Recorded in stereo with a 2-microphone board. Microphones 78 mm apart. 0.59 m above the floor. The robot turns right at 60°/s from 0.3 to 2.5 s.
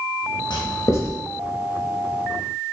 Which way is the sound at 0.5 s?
70° left (ahead or behind).